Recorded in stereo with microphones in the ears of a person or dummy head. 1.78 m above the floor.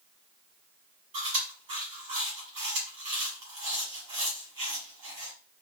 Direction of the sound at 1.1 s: 30° right (ahead or behind).